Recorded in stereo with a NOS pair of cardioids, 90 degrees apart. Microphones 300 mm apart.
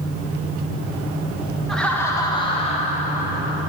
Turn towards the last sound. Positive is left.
turn(degrees=30)